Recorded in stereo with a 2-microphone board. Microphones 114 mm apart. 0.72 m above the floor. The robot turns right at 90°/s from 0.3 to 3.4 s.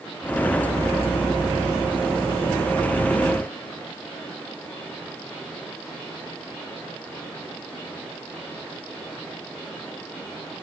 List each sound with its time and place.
Only background noise.